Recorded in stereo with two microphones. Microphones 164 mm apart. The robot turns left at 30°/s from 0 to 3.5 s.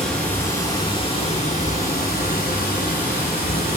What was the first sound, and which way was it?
Running water, 175° left.